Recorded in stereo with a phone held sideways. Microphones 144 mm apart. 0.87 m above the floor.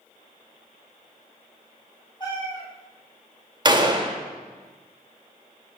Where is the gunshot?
30° right (ahead or behind), 0.6 m.